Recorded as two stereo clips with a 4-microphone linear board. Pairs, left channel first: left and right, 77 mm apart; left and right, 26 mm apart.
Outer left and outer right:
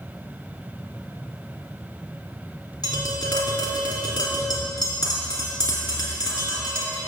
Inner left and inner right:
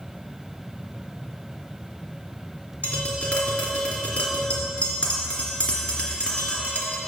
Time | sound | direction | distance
2.8 | tapping | 70° left (ahead or behind) | 2.5 m